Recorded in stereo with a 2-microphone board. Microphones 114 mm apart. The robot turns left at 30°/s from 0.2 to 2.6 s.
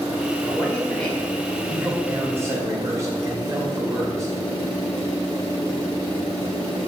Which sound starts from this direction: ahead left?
A man speaking, at 0.4 s.